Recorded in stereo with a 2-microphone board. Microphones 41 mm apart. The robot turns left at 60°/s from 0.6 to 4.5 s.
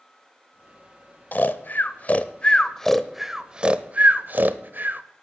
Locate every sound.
1.3 s snoring: 45° left (ahead or behind), 0.7 m; by 5.0 s 50° right (ahead or behind), 0.7 m